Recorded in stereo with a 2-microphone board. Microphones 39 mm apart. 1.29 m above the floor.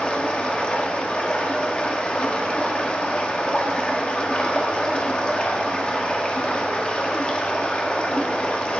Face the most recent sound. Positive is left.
turn(degrees=30)  # may be behind; listen again after turning